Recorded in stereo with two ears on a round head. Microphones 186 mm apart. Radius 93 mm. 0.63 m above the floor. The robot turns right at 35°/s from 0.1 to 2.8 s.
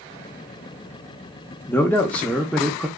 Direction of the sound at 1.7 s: 10° left (ahead or behind).